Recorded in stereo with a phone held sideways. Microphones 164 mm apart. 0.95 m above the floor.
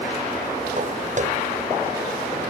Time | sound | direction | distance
0.8 | footsteps | 45° right (ahead or behind) | ?